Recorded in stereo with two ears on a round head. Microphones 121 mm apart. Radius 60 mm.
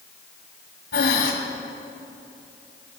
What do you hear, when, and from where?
0.9 s breathing: 80° left, 2 m